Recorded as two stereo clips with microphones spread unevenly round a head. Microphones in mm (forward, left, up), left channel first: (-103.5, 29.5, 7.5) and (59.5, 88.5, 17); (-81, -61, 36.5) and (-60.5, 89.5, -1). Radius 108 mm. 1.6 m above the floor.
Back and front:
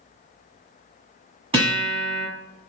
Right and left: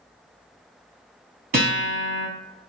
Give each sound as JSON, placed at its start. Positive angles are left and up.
{"t": 1.5, "sound": "a guitar", "azimuth_deg": 55, "distance_m": 1.8}